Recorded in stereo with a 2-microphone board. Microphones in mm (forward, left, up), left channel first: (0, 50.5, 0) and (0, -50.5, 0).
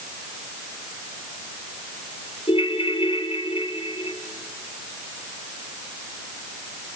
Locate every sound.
2.5 s a ringtone: 65° left (ahead or behind), 2 m